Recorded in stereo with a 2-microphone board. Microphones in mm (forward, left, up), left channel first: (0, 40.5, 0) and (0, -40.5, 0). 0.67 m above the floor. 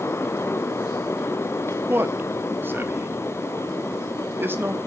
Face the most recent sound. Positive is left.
turn(degrees=-25)  # may be behind; listen again after turning